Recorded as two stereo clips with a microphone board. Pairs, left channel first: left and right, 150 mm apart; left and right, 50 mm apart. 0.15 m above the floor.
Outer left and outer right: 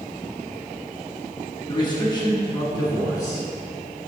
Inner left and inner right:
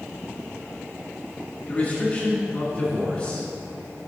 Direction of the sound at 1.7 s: 30° left (ahead or behind).